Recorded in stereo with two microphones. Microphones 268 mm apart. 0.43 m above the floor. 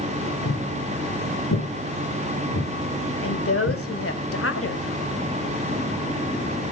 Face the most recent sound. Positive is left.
turn(degrees=55)  # may be behind; listen again after turning